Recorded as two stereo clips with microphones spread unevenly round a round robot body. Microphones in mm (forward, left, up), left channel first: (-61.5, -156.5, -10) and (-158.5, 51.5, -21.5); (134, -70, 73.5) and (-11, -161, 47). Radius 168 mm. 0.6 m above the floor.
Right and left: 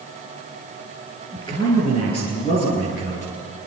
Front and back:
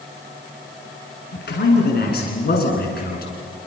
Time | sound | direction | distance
1.3 | a man speaking | 15° left | 8.5 m